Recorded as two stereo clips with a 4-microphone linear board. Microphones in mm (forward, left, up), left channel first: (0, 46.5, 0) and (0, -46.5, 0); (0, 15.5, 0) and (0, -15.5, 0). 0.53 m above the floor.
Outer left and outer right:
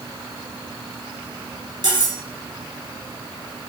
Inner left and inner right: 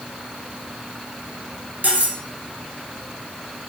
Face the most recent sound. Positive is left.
turn(degrees=-50)  # may be behind; listen again after turning